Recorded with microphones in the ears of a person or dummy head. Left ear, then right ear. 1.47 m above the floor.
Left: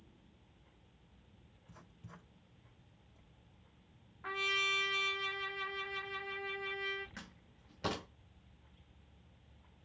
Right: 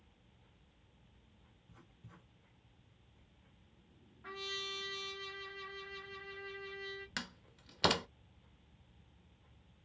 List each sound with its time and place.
1.7 s writing: 50° left (ahead or behind), 3.5 m
4.2 s a trumpet: 35° left (ahead or behind), 0.9 m
7.2 s a door slam: 50° right (ahead or behind), 0.6 m